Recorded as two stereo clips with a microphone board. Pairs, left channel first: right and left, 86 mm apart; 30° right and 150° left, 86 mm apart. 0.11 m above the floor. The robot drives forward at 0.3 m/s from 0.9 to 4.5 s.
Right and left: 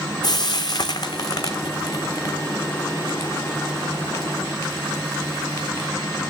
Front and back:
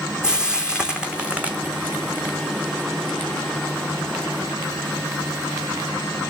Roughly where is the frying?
Behind right.